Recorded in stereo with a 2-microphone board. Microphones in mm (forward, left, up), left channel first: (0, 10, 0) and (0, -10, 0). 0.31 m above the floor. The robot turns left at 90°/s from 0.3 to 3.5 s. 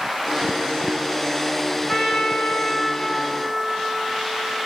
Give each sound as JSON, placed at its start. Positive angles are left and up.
{"t": 1.9, "sound": "a trumpet", "azimuth_deg": 130, "distance_m": 3.0}